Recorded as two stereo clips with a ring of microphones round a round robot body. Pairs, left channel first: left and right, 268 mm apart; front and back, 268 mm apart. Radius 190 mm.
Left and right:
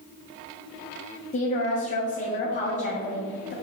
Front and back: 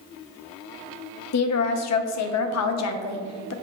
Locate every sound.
1.3 s a woman speaking: 20° left, 0.6 m